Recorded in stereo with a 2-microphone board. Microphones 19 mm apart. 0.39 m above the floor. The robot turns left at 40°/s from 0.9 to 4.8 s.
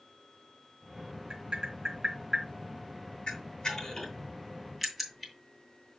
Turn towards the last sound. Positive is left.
turn(degrees=0)  # may be behind; listen again after turning